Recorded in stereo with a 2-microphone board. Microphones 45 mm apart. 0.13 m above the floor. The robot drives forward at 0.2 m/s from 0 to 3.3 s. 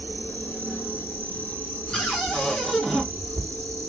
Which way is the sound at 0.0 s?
55° left (ahead or behind).